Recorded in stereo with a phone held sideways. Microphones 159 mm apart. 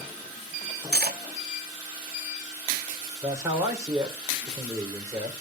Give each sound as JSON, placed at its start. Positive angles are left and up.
{"t": 0.9, "sound": "cutlery clinking", "side_deg": -80, "distance_m": 1.2}
{"t": 3.2, "sound": "a man speaking", "side_deg": -20, "distance_m": 3.5}